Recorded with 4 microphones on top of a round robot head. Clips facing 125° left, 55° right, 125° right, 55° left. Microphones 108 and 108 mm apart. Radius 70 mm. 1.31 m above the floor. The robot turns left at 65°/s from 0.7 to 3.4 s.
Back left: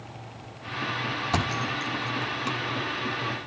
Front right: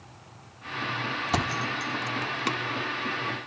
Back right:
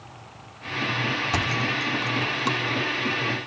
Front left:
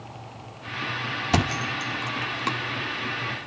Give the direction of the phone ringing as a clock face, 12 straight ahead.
No phone ringing in this recording.